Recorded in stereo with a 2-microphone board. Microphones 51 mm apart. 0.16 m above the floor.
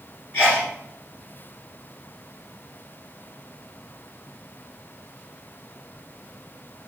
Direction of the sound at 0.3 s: 25° left (ahead or behind).